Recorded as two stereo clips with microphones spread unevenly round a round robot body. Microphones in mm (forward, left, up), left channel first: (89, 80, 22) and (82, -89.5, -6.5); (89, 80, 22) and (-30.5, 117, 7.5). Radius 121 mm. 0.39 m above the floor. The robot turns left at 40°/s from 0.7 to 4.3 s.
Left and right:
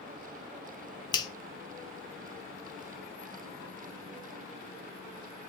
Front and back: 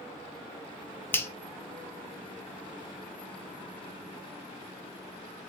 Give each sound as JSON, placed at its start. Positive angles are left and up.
{"t": 1.1, "sound": "a finger snap", "azimuth_deg": 45, "distance_m": 0.6}